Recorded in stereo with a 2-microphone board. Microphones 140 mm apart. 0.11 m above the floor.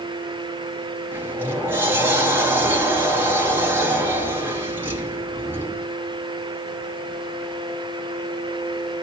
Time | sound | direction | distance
1.1 | a sliding door | 15° right (ahead or behind) | 2 m